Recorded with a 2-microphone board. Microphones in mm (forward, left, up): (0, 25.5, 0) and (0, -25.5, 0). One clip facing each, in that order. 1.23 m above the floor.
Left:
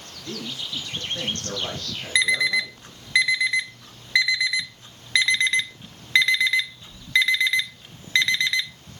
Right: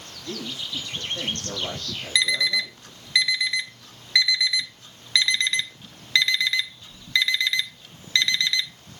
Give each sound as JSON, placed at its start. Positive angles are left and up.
{"t": 0.2, "sound": "a man speaking", "side_deg": 75, "distance_m": 5.5}
{"t": 2.1, "sound": "an alarm clock", "side_deg": 20, "distance_m": 0.6}